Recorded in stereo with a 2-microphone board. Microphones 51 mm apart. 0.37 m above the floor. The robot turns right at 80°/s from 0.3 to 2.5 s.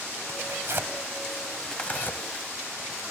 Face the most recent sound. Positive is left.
turn(degrees=65)  # may be behind; listen again after turning